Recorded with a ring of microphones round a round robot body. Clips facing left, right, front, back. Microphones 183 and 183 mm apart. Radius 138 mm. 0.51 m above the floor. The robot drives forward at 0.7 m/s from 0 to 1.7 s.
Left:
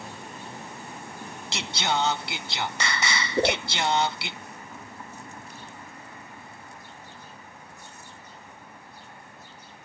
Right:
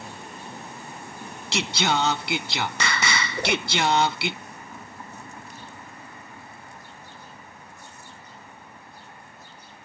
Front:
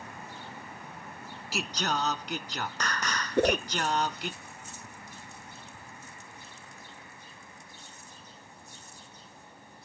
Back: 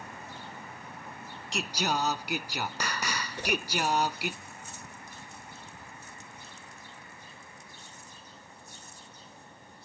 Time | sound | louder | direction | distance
1.5 | singing | right 4 dB, back 1 dB | 85° right | ?
3.4 | a whoosh | left 4 dB, front 9 dB | 30° left | ?